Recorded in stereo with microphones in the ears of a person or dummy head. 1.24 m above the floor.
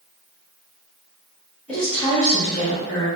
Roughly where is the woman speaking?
Centre.